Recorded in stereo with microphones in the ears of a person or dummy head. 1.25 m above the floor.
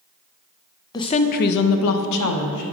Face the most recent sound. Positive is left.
turn(degrees=75)  # may be behind; listen again after turning